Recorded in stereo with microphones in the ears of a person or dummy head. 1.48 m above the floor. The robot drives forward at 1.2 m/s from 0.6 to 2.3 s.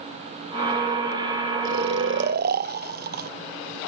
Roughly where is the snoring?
Right.